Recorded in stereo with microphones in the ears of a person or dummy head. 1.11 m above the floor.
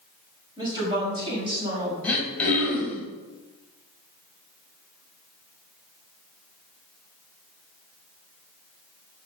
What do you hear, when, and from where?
0.6 s a woman speaking: 25° right (ahead or behind), 4.5 m; by 1.9 s 30° right (ahead or behind), 6 m
2.0 s throat clearing: 10° left (ahead or behind), 3 m